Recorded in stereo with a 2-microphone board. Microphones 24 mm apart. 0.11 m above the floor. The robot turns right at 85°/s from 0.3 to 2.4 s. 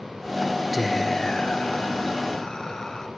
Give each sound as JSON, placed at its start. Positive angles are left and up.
{"t": 0.7, "sound": "whispering", "azimuth_deg": -10, "distance_m": 1.8}